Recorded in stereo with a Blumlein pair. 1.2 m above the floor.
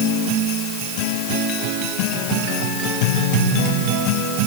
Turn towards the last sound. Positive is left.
No sound to turn to.